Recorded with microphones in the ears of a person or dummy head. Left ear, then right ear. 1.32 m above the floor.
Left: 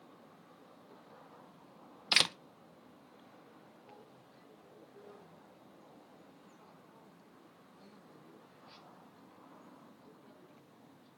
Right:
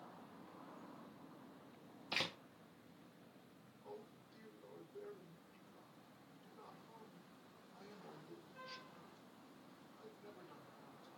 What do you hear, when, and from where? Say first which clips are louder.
2.1 s a door slam: left 12 dB; 65° left (ahead or behind), 0.6 m
3.8 s a man speaking: right 6 dB; 50° right (ahead or behind), 4.5 m